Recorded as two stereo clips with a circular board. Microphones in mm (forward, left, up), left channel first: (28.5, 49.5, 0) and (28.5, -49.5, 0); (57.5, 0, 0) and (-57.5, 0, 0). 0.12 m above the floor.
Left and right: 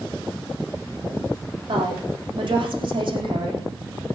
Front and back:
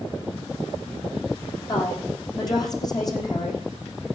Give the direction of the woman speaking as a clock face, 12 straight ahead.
2 o'clock.